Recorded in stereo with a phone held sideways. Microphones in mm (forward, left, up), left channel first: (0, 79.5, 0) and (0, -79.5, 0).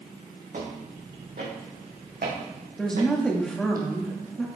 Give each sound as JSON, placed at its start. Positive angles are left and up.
{"t": 0.5, "sound": "footsteps", "side_deg": -55, "distance_m": 6.5}
{"t": 2.8, "sound": "a woman speaking", "side_deg": 5, "distance_m": 2.5}